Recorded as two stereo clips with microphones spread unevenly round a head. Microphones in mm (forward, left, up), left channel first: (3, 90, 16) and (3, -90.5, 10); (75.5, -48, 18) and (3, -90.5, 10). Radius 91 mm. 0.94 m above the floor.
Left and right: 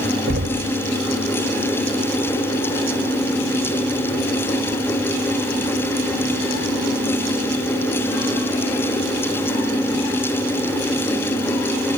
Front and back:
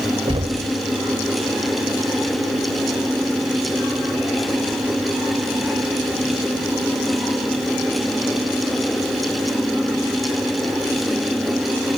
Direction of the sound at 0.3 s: 125° right.